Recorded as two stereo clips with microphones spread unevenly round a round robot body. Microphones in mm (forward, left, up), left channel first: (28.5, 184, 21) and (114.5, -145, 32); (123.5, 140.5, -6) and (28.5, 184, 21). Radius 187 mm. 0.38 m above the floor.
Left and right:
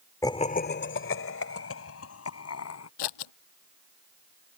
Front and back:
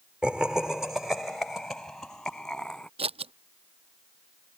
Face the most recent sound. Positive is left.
turn(degrees=135)